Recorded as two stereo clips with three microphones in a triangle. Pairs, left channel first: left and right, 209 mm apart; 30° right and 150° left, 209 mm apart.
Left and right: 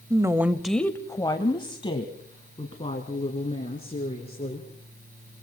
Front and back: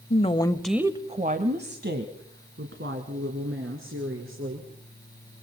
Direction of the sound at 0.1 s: 30° right.